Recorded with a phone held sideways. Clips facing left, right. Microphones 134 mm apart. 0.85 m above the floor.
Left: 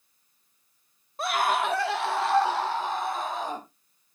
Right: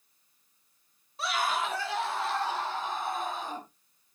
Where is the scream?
50° left (ahead or behind), 1.6 m; by 3.6 s 75° left (ahead or behind), 5 m.